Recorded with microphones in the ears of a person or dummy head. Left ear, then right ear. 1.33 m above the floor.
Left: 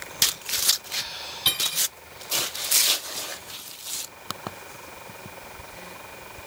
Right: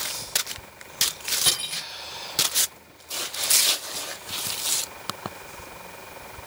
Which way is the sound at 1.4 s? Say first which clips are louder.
Left 4 dB; 5° left (ahead or behind).